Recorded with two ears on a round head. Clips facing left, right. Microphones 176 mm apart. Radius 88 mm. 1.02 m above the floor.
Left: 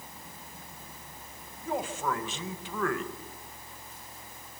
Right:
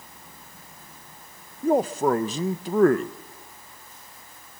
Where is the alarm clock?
No alarm clock in this recording.